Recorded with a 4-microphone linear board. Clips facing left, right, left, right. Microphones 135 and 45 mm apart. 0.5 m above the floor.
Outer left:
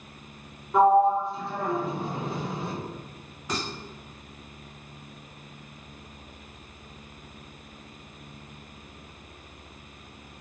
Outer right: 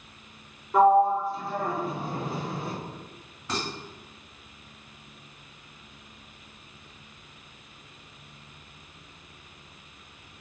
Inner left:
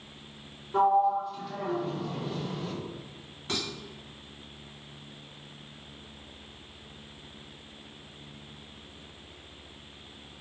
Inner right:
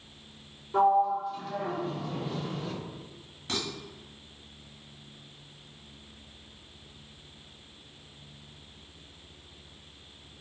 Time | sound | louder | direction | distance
0.7 | a sliding door | even, even | centre (ahead or behind) | 1.0 m
3.5 | dishes clattering | even, even | 10° left (ahead or behind) | 1.7 m